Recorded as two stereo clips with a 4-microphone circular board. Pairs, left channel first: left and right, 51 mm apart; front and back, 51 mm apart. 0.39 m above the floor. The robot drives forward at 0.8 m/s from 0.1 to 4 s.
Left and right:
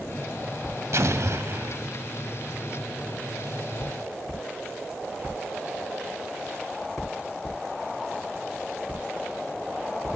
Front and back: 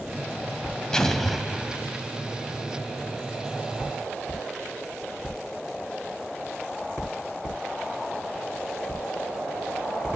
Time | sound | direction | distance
0.9 | an explosion | 75° right | 1.1 m